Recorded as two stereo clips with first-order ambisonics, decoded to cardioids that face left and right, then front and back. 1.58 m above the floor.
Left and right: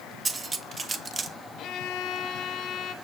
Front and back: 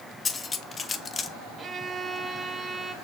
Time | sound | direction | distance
0.2 | cutlery clinking | 40° right | 0.7 m
1.6 | a violin | 115° left | 0.9 m